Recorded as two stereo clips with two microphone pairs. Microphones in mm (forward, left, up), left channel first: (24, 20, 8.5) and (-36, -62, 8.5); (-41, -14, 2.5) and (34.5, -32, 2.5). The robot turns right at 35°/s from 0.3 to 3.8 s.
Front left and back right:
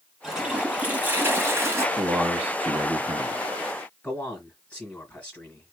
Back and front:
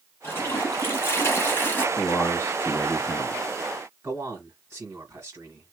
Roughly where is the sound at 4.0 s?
Ahead.